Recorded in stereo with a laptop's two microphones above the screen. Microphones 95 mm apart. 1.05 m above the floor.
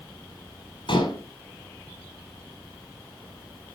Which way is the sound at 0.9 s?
70° left (ahead or behind).